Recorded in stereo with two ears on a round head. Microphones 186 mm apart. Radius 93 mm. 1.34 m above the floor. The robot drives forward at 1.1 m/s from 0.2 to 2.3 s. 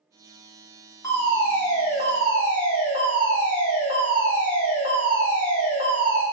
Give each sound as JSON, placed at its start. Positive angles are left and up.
{"t": 1.0, "sound": "a fire alarm", "side_deg": 15, "distance_m": 5.0}